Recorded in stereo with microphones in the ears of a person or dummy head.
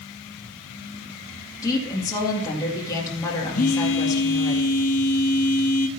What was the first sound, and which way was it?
A woman speaking, 20° left (ahead or behind).